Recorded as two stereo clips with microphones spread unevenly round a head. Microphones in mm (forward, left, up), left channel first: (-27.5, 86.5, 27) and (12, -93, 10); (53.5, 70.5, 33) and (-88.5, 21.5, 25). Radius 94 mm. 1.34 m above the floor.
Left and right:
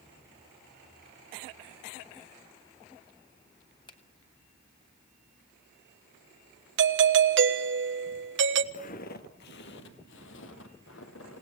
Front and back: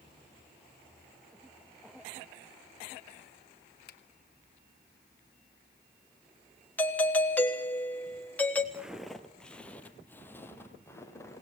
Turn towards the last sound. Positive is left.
turn(degrees=90)